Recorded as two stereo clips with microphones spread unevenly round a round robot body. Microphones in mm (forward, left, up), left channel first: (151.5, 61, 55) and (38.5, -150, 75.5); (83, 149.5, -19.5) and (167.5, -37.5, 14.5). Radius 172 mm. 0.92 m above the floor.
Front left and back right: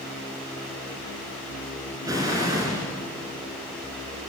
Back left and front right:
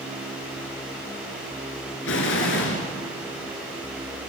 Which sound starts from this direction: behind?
An explosion, at 2.0 s.